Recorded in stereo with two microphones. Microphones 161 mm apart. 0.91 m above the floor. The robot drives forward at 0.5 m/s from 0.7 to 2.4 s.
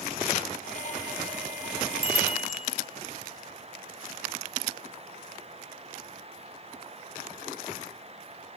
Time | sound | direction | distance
2.0 | a bicycle bell | 85° right | 3 m